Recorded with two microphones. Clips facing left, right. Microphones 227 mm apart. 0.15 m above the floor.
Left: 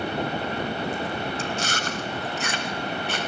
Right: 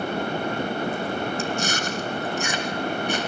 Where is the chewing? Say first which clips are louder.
Right 3 dB; 15° right (ahead or behind), 1.4 m.